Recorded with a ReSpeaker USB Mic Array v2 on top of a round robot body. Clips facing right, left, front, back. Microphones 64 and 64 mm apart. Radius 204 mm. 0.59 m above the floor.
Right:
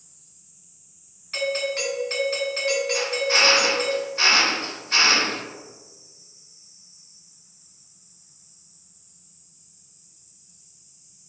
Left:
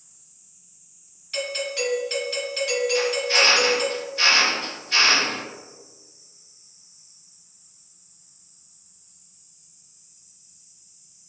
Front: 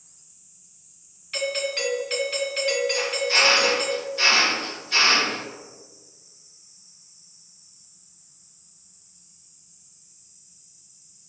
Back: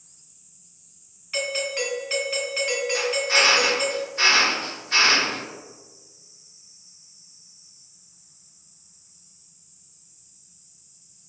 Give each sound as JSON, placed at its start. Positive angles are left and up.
{"t": 1.3, "sound": "a doorbell", "azimuth_deg": -110, "distance_m": 1.9}
{"t": 2.9, "sound": "a drill", "azimuth_deg": -135, "distance_m": 1.8}